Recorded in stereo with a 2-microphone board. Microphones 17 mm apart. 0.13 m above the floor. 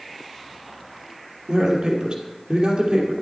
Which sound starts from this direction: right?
A man speaking, at 1.5 s.